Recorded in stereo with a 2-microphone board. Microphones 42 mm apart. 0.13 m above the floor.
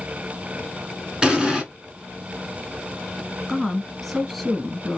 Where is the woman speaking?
Centre (ahead or behind), 1.3 m.